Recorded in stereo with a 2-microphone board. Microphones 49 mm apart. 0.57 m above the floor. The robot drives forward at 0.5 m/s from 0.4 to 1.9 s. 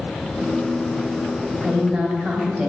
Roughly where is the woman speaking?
Right.